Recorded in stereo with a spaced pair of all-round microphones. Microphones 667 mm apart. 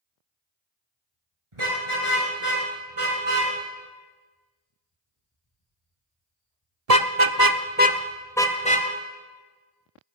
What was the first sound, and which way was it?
A car horn, 45° right (ahead or behind).